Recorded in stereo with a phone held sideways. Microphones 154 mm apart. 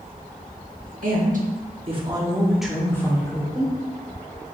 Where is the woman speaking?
65° right (ahead or behind), 1.3 m; by 3.8 s 35° left (ahead or behind), 1.3 m.